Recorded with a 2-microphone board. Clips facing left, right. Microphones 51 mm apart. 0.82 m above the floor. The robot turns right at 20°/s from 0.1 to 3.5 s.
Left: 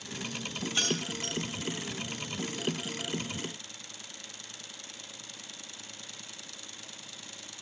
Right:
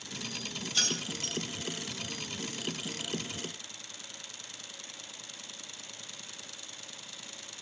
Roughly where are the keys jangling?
Left.